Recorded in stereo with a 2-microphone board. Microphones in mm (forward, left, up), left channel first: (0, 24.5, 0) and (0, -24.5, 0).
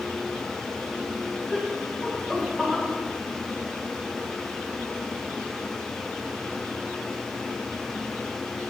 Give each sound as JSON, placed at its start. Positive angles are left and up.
{"t": 1.5, "sound": "laughter", "side_deg": -5, "distance_m": 1.4}